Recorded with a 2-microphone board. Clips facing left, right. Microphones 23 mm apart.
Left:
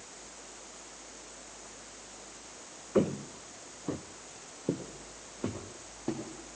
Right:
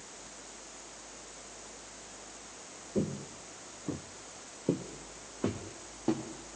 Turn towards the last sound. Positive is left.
turn(degrees=-15)  # may be behind; listen again after turning